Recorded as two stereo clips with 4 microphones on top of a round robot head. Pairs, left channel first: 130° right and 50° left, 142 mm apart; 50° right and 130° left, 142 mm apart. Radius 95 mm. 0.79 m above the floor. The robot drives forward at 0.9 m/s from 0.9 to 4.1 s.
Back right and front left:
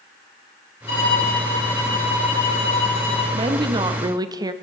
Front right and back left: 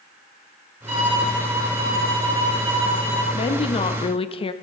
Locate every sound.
0.9 s a violin: straight behind, 4 m
3.3 s a woman speaking: 5° right, 1.4 m